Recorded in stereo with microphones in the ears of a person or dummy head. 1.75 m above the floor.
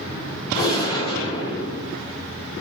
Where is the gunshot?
35° left (ahead or behind), 1.3 m.